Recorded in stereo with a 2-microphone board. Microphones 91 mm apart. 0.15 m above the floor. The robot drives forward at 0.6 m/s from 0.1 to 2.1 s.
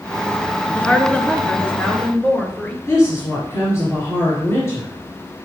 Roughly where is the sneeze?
I don't hear a sneeze.